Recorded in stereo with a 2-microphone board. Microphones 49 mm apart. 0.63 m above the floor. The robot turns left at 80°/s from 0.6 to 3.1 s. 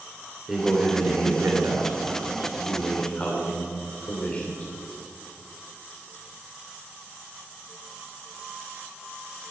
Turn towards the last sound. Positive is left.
turn(degrees=150)